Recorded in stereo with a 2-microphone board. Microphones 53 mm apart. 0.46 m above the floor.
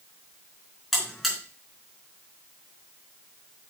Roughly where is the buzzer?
Centre.